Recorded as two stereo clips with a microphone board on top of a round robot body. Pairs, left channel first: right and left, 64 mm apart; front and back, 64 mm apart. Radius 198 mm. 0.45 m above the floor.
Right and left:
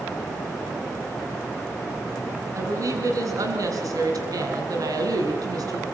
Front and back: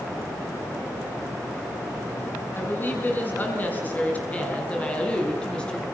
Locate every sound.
2.5 s a woman speaking: 60° left, 6 m; by 5.8 s 75° left, 5.5 m